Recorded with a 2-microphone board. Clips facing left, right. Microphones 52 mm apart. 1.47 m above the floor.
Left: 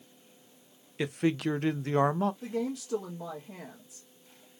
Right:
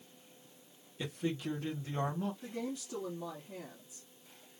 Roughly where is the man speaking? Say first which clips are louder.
Left 8 dB; left.